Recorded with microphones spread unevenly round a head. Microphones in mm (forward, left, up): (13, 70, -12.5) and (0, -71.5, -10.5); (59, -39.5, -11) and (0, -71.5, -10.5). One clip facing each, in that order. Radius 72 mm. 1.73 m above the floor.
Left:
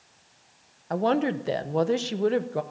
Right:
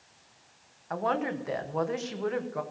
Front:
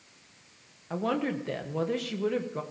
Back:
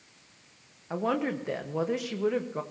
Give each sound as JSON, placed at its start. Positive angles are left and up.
{"t": 0.9, "sound": "a woman speaking", "azimuth_deg": 130, "distance_m": 0.9}